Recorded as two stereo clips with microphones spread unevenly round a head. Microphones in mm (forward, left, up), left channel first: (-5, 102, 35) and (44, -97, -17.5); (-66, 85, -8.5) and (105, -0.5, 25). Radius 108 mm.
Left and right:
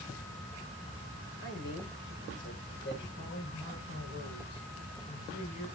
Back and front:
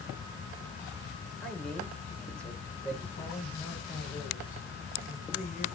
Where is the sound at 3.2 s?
105° left, 8.5 m.